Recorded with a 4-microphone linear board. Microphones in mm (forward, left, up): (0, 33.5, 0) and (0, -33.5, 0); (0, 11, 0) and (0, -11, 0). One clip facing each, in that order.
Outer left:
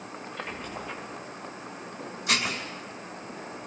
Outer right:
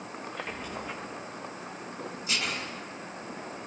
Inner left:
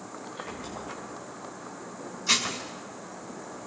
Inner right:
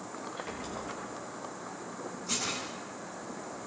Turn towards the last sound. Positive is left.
turn(degrees=70)  # may be behind; listen again after turning